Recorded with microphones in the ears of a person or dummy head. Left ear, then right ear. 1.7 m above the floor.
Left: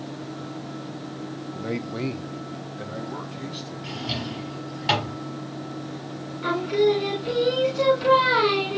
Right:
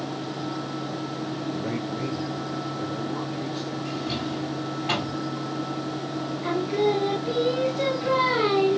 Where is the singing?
60° left (ahead or behind), 4 m.